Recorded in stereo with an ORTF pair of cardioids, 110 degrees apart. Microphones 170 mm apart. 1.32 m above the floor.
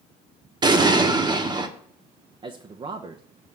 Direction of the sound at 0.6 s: 25° right.